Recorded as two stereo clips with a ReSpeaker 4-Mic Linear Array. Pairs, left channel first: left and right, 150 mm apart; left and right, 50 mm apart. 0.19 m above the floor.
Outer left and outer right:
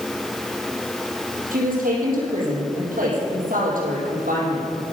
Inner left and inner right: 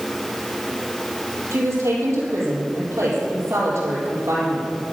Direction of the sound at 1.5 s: 75° right (ahead or behind).